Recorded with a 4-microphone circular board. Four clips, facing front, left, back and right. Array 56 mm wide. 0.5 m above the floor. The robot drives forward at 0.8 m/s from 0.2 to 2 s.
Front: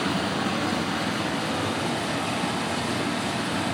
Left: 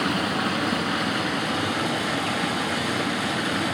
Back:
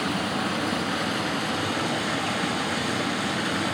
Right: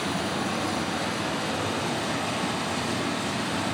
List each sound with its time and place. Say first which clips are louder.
0.0 s running water: left 4 dB, front 1 dB; 95° left, 3.5 m; by 3.8 s 115° left, 3.5 m